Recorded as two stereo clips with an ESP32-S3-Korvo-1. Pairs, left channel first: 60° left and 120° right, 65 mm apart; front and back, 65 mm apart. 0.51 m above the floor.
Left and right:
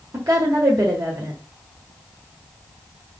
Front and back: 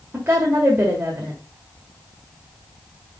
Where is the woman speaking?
120° right, 1.5 m.